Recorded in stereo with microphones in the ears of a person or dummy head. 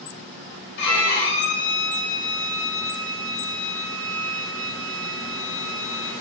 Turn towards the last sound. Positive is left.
turn(degrees=65)  # may be behind; listen again after turning